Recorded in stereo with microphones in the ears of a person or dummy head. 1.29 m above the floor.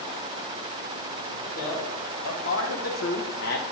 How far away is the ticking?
I don't hear ticking.